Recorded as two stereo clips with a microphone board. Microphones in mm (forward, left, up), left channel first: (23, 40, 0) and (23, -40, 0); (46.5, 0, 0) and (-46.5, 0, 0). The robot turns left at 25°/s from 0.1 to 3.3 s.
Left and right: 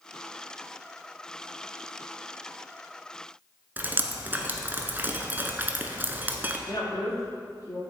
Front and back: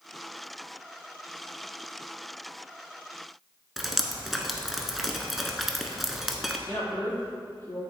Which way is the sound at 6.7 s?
65° left.